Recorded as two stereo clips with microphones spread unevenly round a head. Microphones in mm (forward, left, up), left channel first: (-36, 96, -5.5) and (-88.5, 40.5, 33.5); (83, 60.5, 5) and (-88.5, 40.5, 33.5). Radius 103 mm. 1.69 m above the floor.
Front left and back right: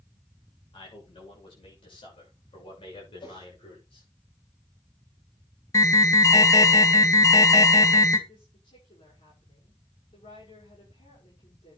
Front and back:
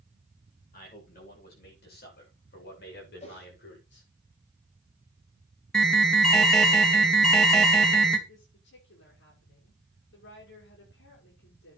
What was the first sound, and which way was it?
A man speaking, 40° left.